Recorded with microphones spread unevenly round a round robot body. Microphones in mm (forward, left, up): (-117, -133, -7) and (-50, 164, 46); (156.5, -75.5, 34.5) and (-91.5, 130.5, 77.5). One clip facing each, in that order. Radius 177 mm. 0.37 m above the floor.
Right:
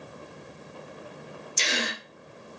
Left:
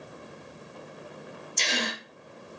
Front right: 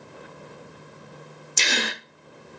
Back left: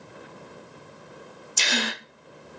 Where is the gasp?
40° right, 0.5 m.